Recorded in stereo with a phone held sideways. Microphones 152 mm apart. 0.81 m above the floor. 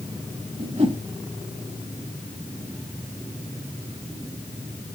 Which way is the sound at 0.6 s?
40° right (ahead or behind).